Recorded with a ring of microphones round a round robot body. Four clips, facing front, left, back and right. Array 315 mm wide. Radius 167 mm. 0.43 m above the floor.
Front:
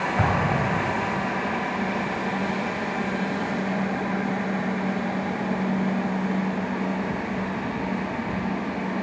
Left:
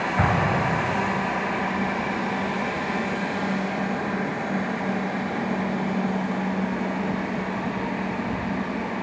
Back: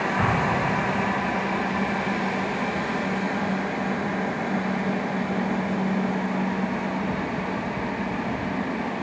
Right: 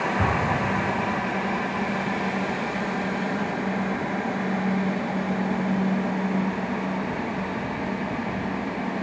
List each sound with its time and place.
0.2 s an explosion: 55° left, 2 m